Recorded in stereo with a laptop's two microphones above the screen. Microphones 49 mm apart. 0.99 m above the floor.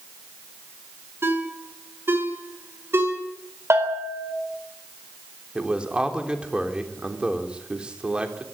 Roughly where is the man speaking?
Centre.